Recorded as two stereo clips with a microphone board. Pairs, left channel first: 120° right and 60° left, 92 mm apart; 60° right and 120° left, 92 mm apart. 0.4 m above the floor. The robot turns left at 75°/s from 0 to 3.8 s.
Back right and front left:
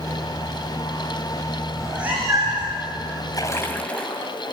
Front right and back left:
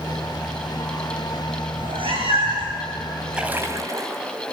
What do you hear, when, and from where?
1.7 s a cat meowing: 160° left, 5.5 m; by 2.8 s 80° left, 5.5 m
3.3 s a splash: 160° right, 3 m; by 4.2 s 165° left, 3 m